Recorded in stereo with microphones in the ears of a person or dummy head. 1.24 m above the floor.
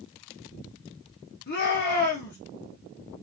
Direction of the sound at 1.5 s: 45° left (ahead or behind).